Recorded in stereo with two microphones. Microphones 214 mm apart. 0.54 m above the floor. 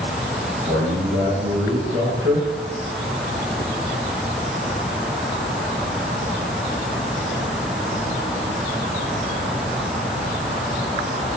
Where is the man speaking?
75° right (ahead or behind), 5.5 m.